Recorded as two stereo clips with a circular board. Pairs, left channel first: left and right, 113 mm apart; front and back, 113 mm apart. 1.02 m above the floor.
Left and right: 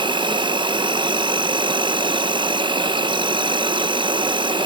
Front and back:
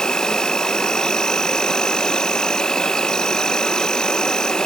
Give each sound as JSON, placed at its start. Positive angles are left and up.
{"t": 0.0, "sound": "an insect", "azimuth_deg": -85}